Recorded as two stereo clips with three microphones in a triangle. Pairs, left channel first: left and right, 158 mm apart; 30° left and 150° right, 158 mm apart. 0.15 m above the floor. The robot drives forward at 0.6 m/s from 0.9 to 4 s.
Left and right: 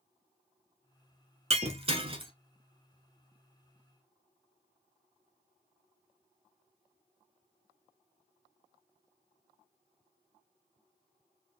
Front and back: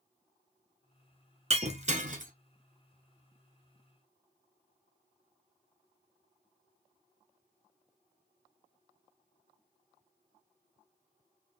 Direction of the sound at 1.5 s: 120° right.